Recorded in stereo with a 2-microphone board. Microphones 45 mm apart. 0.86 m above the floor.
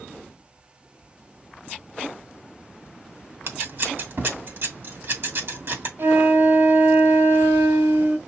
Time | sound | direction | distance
3.5 | scissors | 60° right (ahead or behind) | 1.9 m
6.0 | a flute | 65° right (ahead or behind) | 1.3 m